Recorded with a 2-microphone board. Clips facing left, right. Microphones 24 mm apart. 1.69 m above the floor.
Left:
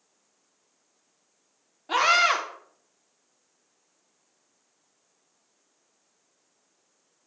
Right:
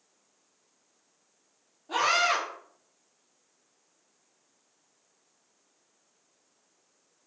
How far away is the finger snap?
I don't hear a finger snap.